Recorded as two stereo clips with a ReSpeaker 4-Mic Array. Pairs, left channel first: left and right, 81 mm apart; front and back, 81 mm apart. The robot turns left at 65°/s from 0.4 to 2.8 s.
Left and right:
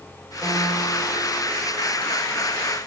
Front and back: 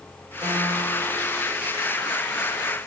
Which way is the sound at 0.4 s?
160° left.